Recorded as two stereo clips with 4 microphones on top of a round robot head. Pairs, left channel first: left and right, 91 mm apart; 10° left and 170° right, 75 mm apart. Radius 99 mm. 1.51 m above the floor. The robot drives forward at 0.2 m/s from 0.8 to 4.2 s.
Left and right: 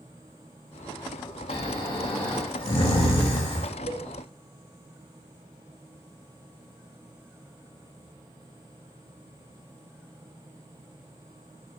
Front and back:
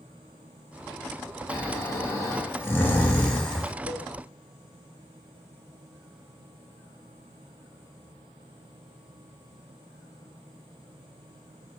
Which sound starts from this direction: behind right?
A cowbell, at 3.9 s.